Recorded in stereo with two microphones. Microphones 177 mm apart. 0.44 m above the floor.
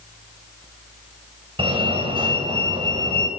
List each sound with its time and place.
1.6 s a fire alarm: 30° right (ahead or behind), 3.5 m